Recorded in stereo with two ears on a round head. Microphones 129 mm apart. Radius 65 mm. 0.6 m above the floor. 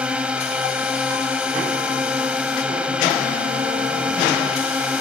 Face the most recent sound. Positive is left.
turn(degrees=-5)  # may be behind; listen again after turning